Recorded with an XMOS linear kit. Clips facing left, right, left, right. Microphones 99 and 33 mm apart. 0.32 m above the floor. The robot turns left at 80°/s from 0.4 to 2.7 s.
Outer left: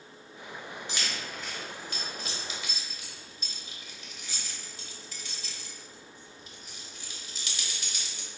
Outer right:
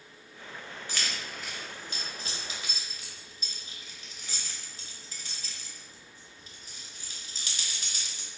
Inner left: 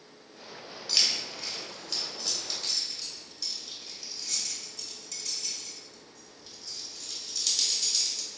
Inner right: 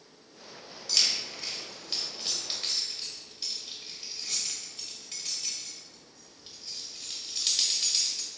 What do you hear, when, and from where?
0.9 s keys jangling: 20° left (ahead or behind), 0.9 m; by 8.3 s 35° right (ahead or behind), 0.9 m